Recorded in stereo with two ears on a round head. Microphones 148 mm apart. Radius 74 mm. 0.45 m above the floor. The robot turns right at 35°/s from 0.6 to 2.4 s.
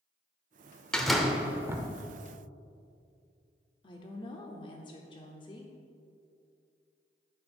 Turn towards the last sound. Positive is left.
turn(degrees=30)  # may be behind; listen again after turning